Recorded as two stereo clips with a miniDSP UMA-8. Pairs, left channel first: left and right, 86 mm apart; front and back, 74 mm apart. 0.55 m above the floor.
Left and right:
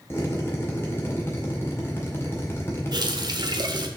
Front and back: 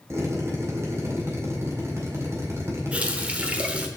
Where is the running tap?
110° right, 1.1 m.